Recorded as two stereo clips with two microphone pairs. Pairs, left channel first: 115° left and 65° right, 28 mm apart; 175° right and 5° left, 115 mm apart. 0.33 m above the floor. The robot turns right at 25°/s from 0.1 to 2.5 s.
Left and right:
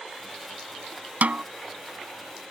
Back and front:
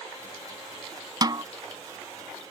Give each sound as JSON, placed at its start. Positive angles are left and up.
{"t": 1.2, "sound": "a snare drum", "azimuth_deg": -50}